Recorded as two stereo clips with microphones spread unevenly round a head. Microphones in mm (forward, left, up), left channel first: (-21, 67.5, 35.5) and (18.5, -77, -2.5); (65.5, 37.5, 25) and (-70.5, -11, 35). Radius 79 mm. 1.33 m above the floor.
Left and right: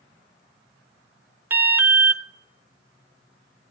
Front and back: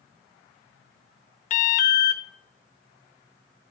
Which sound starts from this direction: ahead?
An alarm, at 1.5 s.